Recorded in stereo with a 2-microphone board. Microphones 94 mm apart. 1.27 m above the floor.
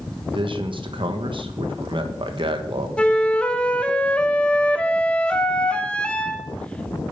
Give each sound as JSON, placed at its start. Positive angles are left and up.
{"t": 0.3, "sound": "a man speaking", "side_deg": -65, "distance_m": 1.4}
{"t": 3.0, "sound": "a flute", "side_deg": 10, "distance_m": 0.9}